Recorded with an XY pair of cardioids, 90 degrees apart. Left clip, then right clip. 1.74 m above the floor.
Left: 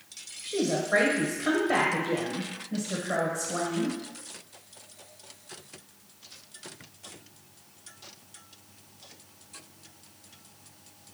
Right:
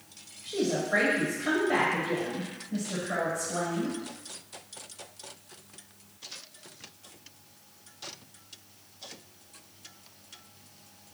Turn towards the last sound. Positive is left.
turn(degrees=35)